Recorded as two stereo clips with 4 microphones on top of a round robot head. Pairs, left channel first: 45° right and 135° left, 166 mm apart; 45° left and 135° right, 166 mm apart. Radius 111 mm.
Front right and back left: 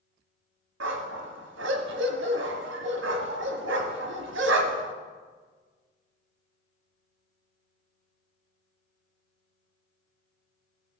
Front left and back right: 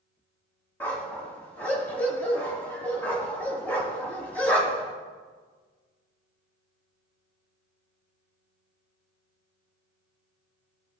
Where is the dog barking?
125° left, 0.9 m.